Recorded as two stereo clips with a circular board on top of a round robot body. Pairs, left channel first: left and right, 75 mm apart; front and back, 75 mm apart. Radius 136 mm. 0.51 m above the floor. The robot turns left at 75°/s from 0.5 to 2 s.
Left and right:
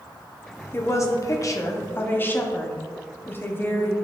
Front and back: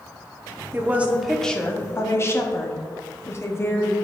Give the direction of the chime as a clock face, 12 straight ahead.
No chime in this recording.